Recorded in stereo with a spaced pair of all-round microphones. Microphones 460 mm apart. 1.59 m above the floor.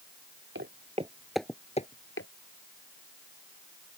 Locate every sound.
0.6 s footsteps: 25° right (ahead or behind); by 2.3 s 30° left (ahead or behind)